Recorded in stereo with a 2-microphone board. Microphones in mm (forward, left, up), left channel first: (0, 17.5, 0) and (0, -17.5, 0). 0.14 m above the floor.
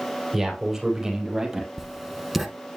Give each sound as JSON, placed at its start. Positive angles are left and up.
{"t": 0.3, "sound": "a man speaking", "side_deg": -5, "distance_m": 4.0}
{"t": 1.8, "sound": "writing", "side_deg": -5, "distance_m": 0.9}